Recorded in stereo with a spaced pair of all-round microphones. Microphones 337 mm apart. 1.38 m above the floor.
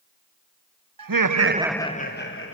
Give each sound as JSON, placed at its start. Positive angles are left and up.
{"t": 1.0, "sound": "laughter", "side_deg": -80, "distance_m": 0.8}